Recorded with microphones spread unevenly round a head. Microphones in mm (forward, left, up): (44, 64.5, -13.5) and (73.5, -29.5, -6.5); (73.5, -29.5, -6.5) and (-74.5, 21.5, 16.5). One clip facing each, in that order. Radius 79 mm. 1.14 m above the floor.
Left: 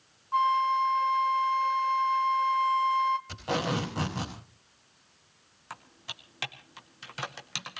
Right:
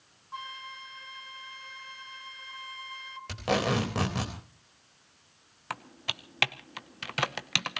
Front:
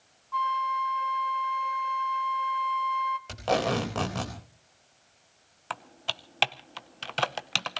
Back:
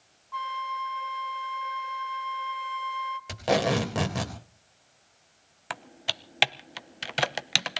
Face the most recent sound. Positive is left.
turn(degrees=-120)